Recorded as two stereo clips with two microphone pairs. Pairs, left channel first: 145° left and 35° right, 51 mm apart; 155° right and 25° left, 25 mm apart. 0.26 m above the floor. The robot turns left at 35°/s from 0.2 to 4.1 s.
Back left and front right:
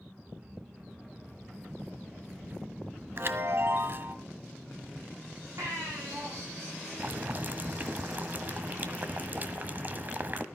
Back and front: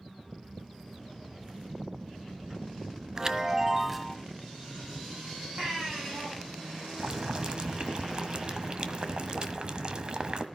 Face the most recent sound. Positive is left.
turn(degrees=0)